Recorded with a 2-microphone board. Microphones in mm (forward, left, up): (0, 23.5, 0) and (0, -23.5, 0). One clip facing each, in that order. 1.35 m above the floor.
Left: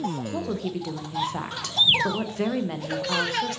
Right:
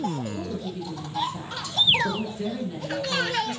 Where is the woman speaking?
65° left (ahead or behind), 0.9 m.